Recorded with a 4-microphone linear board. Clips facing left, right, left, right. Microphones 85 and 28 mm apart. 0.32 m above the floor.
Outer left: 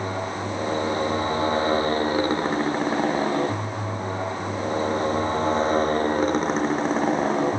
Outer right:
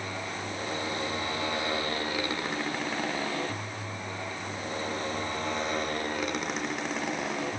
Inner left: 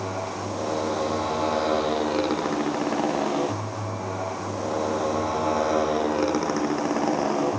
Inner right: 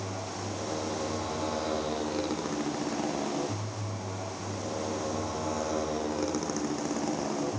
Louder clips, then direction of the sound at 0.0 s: Outer left 8 dB, inner left 7 dB; 35° left (ahead or behind).